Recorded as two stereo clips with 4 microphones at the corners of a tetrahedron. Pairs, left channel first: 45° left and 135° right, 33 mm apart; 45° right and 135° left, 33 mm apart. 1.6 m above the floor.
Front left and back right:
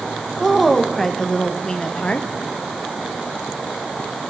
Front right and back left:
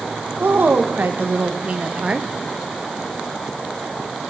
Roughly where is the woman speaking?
Behind left.